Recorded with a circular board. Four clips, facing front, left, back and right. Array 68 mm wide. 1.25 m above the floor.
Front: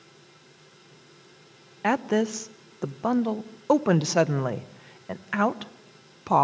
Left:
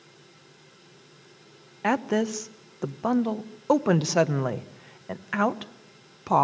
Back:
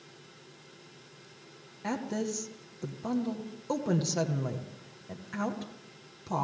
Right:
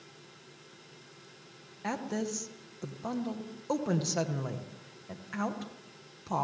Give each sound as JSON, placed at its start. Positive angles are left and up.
{"t": 1.8, "sound": "a woman speaking", "azimuth_deg": 40, "distance_m": 1.1}